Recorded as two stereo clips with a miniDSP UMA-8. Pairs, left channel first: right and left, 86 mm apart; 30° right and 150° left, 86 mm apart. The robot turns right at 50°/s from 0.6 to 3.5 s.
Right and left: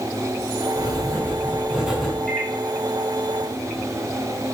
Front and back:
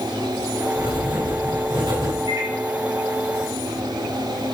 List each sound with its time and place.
0.8 s writing: 120° left, 3.5 m; by 2.2 s 170° right, 3.5 m
2.3 s a microwave: 170° right, 3 m; by 2.5 s 160° right, 3 m